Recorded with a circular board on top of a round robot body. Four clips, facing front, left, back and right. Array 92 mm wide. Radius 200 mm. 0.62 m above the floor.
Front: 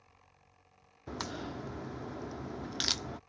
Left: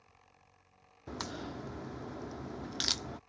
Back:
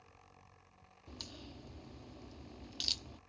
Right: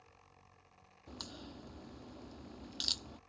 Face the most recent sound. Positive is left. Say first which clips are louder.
# left 9 dB, front 13 dB
turn(degrees=30)